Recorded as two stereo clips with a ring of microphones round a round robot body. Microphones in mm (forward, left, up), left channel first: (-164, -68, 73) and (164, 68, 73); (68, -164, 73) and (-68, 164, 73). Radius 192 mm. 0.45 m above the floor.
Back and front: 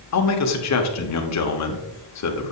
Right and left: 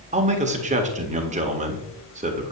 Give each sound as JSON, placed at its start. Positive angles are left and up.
{"t": 0.1, "sound": "a man speaking", "azimuth_deg": 180, "distance_m": 1.4}